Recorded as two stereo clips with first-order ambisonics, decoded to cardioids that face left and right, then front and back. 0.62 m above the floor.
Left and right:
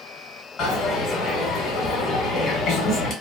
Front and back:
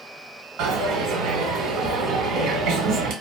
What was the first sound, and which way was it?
A dropped coin, 145° left.